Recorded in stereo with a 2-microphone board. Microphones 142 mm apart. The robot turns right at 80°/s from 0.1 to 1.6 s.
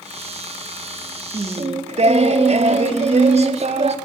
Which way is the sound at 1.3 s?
30° right (ahead or behind).